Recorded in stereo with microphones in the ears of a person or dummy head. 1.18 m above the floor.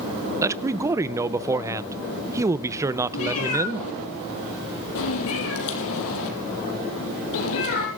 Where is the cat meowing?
75° left (ahead or behind), 4.5 m.